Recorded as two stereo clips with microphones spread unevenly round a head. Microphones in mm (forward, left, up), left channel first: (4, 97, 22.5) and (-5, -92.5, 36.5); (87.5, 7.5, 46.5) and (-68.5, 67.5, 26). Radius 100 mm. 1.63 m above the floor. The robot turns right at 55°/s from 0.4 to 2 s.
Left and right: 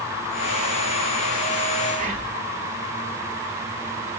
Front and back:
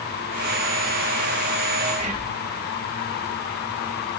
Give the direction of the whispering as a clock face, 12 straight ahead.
5 o'clock.